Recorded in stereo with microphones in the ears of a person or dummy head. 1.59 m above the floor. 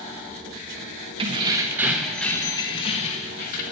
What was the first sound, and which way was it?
Keys jangling, 35° right (ahead or behind).